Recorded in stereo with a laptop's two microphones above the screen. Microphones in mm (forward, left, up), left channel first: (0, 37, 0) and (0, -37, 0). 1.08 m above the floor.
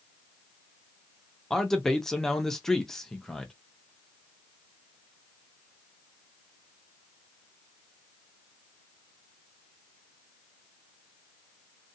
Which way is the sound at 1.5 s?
5° left (ahead or behind).